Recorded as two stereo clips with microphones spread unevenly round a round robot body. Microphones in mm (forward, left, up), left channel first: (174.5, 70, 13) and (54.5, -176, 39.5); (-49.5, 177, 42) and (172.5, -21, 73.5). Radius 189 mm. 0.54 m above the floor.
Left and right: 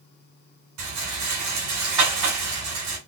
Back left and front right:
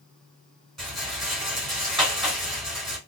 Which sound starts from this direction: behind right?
A rattle, at 0.8 s.